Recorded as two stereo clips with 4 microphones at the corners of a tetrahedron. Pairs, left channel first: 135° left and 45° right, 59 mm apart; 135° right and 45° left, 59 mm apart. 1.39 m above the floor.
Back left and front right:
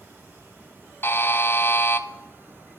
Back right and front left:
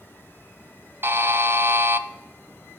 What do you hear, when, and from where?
1.0 s a buzzer: 90° left, 0.5 m